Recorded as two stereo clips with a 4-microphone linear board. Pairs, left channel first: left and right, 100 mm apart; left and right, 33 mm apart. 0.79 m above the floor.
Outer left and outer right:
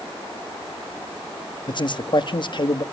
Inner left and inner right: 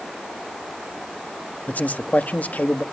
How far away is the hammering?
I don't hear hammering.